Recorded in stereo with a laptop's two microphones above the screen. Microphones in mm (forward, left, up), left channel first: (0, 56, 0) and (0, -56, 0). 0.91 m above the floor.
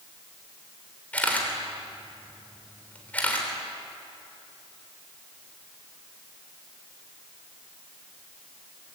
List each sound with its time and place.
1.1 s a camera shutter: 15° left (ahead or behind), 3.5 m